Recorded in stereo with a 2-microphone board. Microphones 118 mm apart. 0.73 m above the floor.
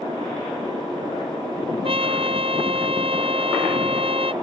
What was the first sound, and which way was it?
A trumpet, 55° right (ahead or behind).